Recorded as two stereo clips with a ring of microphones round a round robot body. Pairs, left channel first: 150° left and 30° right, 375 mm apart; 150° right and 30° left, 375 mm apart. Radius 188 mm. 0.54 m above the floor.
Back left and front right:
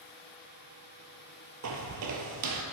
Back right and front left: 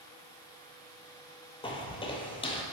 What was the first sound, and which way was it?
Footsteps, 75° right.